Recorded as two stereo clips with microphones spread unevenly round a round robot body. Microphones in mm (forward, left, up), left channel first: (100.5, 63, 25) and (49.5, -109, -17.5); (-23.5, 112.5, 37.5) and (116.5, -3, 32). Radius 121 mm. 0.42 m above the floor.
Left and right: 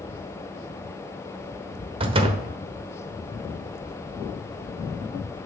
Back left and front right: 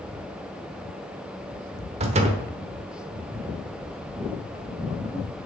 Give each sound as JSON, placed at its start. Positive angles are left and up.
{"t": 2.0, "sound": "a door slam", "azimuth_deg": -80, "distance_m": 1.0}